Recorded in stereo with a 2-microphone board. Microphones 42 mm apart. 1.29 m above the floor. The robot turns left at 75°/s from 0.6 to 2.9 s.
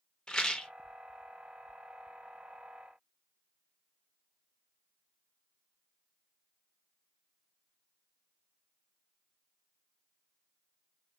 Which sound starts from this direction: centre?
A rattle, at 0.3 s.